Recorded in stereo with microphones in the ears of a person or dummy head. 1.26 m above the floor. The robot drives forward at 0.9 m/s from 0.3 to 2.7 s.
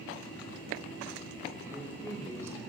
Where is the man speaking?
10° right (ahead or behind), 5 m.